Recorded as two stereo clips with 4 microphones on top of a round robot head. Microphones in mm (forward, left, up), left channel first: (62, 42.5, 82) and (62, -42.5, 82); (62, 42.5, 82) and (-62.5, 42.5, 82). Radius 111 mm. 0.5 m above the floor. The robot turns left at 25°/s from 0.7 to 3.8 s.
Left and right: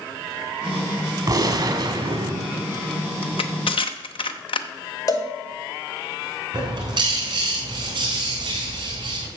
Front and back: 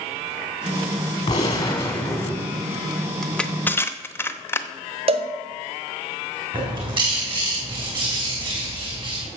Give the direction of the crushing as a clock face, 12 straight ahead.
9 o'clock.